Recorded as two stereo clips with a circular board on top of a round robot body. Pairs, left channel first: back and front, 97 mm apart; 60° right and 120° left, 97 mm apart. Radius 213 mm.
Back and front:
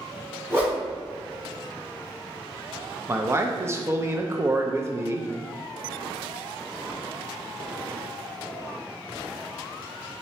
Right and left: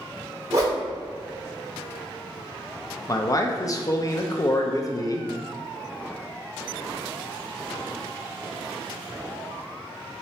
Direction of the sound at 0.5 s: 65° left.